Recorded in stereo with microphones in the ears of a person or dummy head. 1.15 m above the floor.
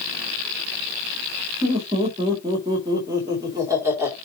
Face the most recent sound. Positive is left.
turn(degrees=-10)  # may be behind; listen again after turning